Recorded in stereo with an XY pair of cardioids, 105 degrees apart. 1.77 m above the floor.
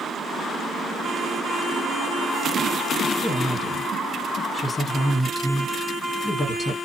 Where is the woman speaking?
30° left, 1.5 m.